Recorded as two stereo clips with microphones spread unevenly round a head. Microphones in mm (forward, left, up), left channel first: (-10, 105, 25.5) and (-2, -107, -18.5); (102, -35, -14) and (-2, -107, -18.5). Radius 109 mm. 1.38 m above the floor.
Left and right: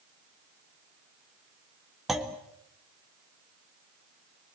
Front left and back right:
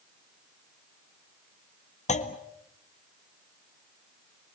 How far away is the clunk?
About 1.7 m.